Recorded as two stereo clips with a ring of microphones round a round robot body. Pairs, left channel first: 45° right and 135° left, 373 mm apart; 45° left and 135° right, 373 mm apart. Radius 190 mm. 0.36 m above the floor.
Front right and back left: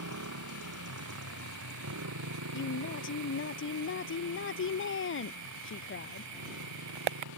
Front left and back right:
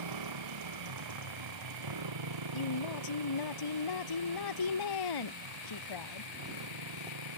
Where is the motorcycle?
170° right; by 7.4 s 175° right.